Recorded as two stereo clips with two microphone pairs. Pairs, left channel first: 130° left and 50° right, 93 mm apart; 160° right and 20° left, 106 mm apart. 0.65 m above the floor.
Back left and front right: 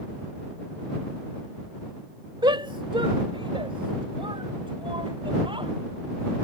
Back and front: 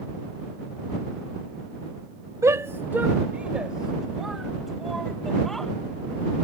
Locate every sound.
2.4 s a shout: 35° right; by 5.7 s 75° right